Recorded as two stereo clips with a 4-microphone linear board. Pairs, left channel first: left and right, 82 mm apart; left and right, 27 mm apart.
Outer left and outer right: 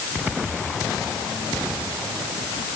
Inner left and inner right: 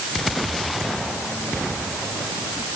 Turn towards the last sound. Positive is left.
No sound to turn to.